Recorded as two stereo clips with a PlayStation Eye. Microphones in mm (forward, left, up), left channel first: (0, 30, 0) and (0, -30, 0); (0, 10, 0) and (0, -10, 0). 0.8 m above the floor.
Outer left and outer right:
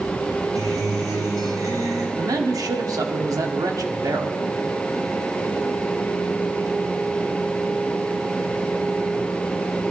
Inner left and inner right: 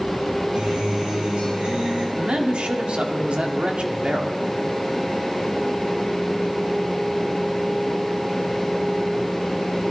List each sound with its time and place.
0.6 s a guitar: 65° right (ahead or behind), 5.5 m
2.2 s a man speaking: 70° right (ahead or behind), 1.4 m